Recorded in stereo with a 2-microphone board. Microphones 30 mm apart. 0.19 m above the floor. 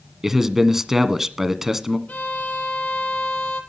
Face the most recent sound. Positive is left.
turn(degrees=60)  # may be behind; listen again after turning